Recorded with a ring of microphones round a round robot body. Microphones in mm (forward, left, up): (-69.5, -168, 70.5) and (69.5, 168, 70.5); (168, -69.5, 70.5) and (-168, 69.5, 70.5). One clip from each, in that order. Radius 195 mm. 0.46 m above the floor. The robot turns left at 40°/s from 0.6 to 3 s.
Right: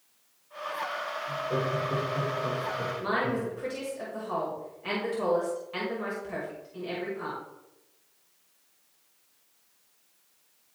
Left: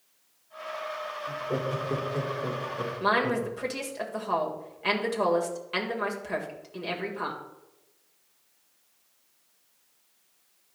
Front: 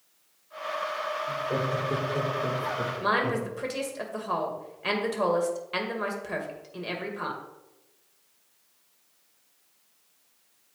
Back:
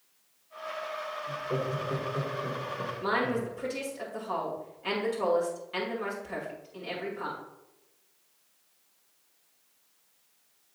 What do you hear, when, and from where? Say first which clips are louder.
1.3 s laughter: right 1 dB, front 2 dB; 80° left, 1.7 m; by 3.5 s 10° left, 1.7 m
3.0 s a woman speaking: left 6 dB, front 2 dB; 35° left, 2 m